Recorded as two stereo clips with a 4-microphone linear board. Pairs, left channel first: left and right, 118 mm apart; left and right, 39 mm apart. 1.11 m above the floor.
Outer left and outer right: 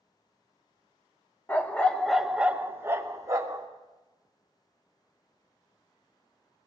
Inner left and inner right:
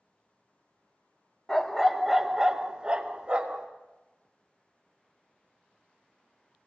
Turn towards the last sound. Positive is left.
turn(degrees=-30)  # may be behind; listen again after turning